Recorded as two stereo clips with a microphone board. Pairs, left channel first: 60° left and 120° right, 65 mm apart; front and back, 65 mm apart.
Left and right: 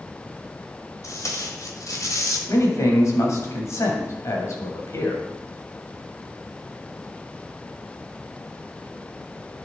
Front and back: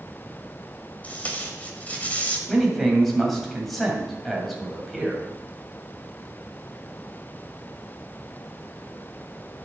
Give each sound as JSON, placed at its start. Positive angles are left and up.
{"t": 1.0, "sound": "tape being pulled", "azimuth_deg": 60, "distance_m": 1.6}
{"t": 2.5, "sound": "a man speaking", "azimuth_deg": 90, "distance_m": 2.5}